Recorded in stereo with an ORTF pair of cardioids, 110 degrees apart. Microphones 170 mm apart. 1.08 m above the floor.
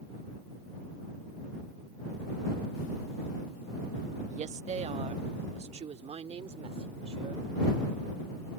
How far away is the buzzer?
I don't hear a buzzer.